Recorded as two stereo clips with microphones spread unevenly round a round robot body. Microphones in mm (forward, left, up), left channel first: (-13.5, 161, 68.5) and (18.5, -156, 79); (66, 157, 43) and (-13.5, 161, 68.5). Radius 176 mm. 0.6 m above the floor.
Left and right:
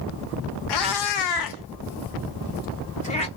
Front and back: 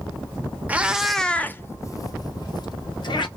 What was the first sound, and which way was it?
A cat meowing, 105° left.